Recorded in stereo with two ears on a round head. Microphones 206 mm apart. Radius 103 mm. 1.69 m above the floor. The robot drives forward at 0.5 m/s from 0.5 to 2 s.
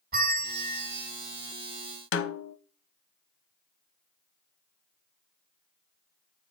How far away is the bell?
About 2 m.